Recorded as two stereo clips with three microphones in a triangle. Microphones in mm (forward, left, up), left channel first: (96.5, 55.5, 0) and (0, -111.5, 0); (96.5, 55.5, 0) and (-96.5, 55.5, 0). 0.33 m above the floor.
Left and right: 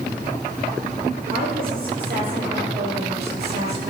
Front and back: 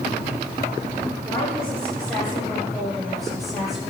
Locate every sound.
1.2 s a woman speaking: 80° right, 6 m; by 3.9 s 90° right, 7.5 m